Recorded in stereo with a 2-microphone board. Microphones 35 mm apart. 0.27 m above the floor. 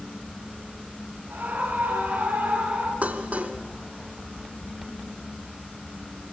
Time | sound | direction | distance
1.3 | a scream | 50° right (ahead or behind) | 6 m
3.0 | dishes clattering | 40° right (ahead or behind) | 2 m